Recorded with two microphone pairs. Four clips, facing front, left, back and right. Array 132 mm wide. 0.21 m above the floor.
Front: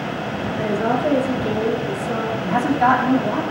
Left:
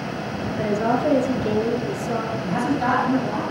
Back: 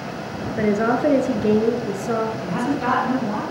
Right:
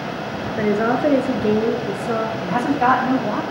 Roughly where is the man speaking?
Ahead right.